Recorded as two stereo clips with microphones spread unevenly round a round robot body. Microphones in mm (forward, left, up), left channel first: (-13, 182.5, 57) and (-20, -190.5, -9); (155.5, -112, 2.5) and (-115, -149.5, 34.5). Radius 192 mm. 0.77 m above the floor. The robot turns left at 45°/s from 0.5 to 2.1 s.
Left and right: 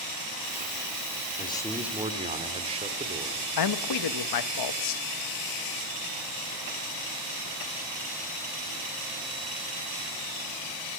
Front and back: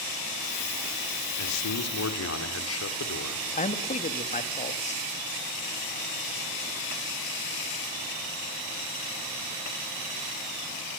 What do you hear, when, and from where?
1.4 s a man speaking: 15° left, 2.5 m; by 3.5 s 20° right, 2.5 m
3.6 s a man speaking: 60° left, 1.1 m